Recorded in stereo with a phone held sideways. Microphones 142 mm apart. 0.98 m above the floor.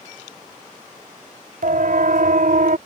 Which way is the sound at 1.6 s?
75° right (ahead or behind).